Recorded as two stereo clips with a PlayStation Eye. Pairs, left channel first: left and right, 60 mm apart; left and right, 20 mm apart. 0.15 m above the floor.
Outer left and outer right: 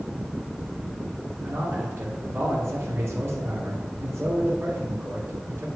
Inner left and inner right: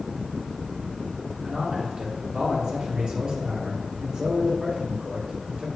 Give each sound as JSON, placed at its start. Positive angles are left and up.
{"t": 1.4, "sound": "a man speaking", "side_deg": -45, "distance_m": 2.5}